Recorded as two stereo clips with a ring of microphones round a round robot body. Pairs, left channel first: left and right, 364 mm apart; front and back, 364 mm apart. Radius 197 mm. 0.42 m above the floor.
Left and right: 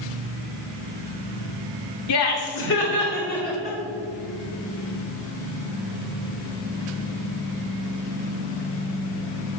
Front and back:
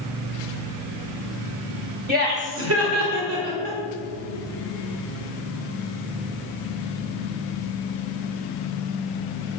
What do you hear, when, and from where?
2.1 s laughter: 120° left, 1.3 m; by 3.8 s 160° left, 1.6 m